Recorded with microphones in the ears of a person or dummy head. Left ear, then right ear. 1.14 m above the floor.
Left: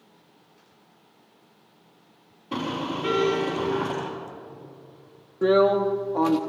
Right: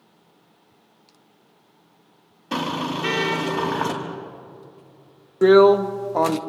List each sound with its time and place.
2.5 s a car horn: 70° right (ahead or behind), 4.5 m
5.4 s a drill: 60° right (ahead or behind), 0.7 m